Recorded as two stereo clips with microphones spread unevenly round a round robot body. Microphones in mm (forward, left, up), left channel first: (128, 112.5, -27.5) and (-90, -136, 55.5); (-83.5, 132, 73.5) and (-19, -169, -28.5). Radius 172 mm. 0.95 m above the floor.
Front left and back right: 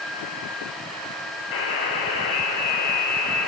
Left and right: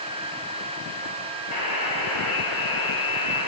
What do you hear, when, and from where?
1.5 s a buzzer: 105° left, 3.5 m